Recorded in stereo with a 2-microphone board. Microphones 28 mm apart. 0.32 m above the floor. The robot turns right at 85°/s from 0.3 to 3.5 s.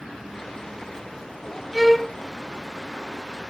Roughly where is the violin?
Centre.